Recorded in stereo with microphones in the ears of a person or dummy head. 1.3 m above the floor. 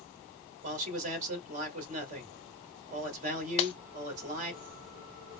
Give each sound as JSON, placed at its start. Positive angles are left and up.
{"t": 0.6, "sound": "a man speaking", "side_deg": -45, "distance_m": 1.8}
{"t": 3.6, "sound": "breaking glass", "side_deg": 35, "distance_m": 0.6}